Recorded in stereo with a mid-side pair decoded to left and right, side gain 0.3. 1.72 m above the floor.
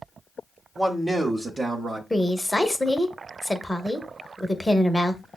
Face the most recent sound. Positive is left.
turn(degrees=10)